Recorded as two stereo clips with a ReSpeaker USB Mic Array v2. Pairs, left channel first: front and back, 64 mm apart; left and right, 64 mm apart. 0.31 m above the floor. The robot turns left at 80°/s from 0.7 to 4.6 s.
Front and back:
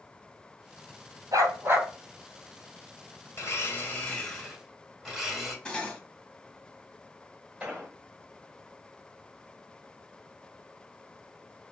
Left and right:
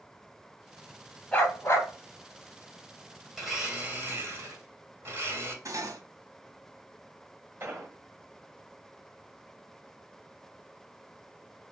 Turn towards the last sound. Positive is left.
turn(degrees=-115)